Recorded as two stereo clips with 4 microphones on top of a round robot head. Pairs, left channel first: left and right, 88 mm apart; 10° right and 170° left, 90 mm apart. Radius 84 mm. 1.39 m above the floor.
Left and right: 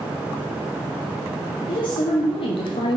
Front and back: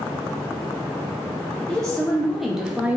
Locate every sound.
1.7 s a woman speaking: 75° left, 1.5 m; by 3.0 s 100° left, 0.7 m